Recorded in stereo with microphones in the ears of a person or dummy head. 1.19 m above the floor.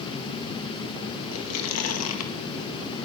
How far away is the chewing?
About 1.6 m.